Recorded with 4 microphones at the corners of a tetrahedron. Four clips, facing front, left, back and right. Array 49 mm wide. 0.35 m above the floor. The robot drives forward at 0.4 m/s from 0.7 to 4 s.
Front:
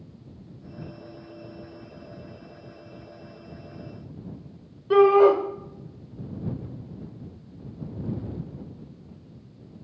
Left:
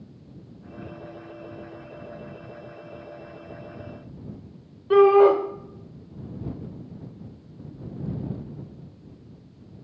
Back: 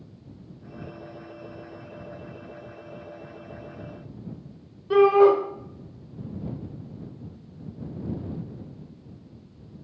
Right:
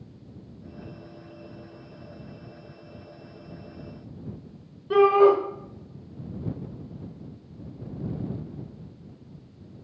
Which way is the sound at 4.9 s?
80° left.